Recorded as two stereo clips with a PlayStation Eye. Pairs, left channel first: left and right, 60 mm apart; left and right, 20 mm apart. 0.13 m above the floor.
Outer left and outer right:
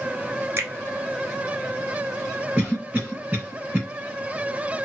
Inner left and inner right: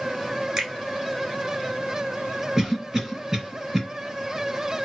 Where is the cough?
15° right (ahead or behind), 1.8 m.